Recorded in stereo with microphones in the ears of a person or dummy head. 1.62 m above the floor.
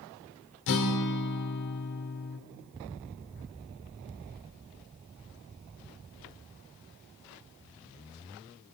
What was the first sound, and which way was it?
A guitar, 65° left (ahead or behind).